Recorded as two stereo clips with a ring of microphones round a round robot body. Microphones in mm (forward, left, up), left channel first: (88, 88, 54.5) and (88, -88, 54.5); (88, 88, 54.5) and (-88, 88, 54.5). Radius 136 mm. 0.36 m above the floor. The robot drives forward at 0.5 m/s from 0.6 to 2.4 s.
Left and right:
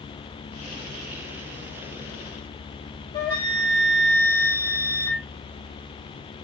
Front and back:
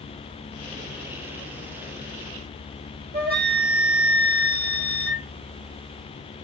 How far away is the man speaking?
No man speaking in this recording.